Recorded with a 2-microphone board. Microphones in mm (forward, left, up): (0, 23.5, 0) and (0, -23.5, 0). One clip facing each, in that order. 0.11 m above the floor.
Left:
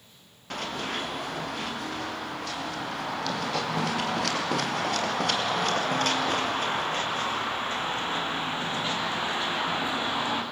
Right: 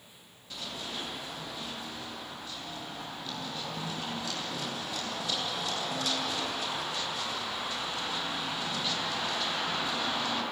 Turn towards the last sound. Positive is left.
turn(degrees=20)  # may be behind; listen again after turning